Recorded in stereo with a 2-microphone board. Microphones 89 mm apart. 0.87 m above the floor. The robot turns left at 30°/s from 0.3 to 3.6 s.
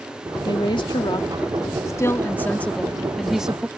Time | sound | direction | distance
0.5 | a woman speaking | 80° left | ?